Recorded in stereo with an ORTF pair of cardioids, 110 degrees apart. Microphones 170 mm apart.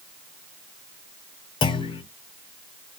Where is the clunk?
30° left, 0.5 m.